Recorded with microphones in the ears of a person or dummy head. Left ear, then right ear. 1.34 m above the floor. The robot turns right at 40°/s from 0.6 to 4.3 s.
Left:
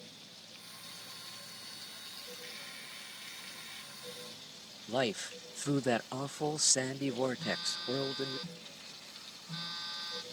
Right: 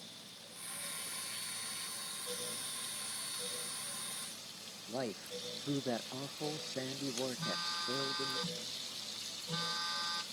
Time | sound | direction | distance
4.9 | a man speaking | 75° left (ahead or behind) | ?
7.4 | a phone buzzing | 30° right (ahead or behind) | ?